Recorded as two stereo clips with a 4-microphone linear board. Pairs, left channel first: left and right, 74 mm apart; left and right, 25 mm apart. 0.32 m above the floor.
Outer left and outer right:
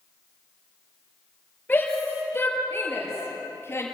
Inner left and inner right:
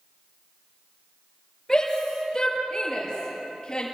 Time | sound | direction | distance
1.7 | a shout | 20° left (ahead or behind) | 6.5 m